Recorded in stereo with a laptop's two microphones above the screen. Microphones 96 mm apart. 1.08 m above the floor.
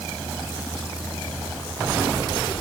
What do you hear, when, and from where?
Only background noise.